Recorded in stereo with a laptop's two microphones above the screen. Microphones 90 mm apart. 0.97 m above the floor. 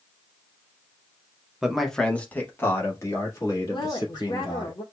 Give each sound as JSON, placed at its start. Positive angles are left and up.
{"t": 1.6, "sound": "a man speaking", "side_deg": -5, "distance_m": 0.6}
{"t": 3.7, "sound": "a woman speaking", "side_deg": 50, "distance_m": 0.7}